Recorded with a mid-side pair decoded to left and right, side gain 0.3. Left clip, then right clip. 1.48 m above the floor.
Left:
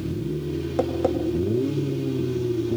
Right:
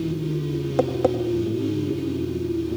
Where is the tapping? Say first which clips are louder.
Right 2 dB; 30° right, 2.5 m.